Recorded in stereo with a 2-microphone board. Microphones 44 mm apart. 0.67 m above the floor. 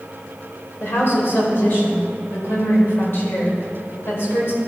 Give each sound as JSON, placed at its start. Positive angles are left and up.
{"t": 0.8, "sound": "a woman speaking", "side_deg": 65, "distance_m": 2.5}